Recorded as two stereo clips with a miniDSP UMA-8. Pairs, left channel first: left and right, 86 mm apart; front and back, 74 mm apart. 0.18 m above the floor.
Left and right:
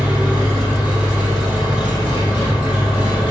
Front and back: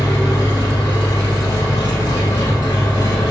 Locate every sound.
0.0 s an engine running: 10° right, 4 m